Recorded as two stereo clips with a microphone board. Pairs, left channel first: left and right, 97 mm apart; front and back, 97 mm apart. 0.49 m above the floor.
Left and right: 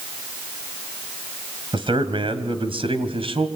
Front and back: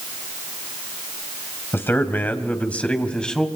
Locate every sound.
1.7 s a man speaking: 65° right, 2.5 m; by 3.5 s 85° right, 3 m